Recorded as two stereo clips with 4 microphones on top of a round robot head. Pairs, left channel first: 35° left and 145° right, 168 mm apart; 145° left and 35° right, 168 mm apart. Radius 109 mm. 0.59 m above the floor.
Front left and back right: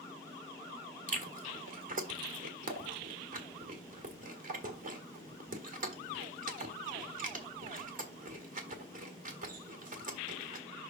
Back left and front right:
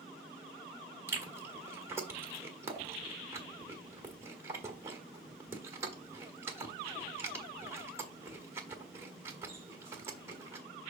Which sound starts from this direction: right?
Chewing, at 1.1 s.